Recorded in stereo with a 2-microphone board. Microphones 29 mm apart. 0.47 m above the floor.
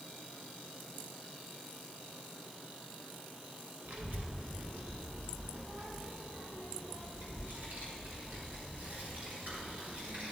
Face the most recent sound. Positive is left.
turn(degrees=-60)  # may be behind; listen again after turning